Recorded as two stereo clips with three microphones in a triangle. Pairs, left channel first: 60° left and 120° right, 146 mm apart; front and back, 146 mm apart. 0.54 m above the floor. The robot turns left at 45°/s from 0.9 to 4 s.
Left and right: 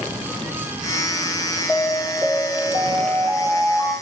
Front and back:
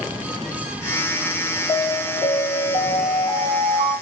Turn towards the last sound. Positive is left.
turn(degrees=-120)